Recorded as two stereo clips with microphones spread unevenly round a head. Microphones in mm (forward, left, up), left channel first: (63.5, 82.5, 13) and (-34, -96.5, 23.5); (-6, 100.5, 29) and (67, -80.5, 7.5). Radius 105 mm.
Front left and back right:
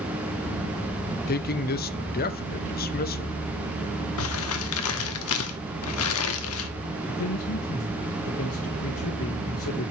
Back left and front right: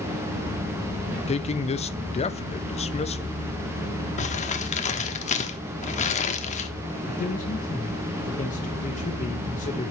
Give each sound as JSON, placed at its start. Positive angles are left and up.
{"t": 1.3, "sound": "a man speaking", "azimuth_deg": 60, "distance_m": 0.7}
{"t": 4.2, "sound": "crumpling", "azimuth_deg": 65, "distance_m": 1.1}
{"t": 7.1, "sound": "a man speaking", "azimuth_deg": 60, "distance_m": 1.5}